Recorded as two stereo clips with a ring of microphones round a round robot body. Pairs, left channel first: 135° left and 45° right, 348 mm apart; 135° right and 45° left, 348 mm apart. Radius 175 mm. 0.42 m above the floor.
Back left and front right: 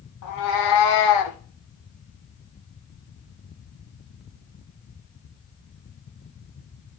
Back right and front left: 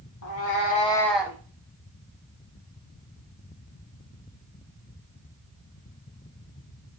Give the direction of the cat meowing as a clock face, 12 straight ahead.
6 o'clock.